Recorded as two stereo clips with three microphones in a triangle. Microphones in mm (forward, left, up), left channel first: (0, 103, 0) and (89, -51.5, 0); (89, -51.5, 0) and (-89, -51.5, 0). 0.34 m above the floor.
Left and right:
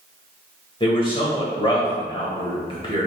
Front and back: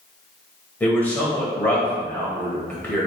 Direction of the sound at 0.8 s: 75° left.